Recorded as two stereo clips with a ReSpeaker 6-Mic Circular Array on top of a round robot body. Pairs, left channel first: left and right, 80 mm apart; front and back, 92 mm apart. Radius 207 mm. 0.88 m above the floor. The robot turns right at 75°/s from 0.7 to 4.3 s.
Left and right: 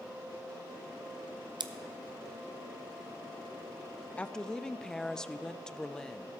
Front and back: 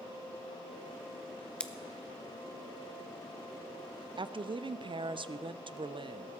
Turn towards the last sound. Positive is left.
turn(degrees=170)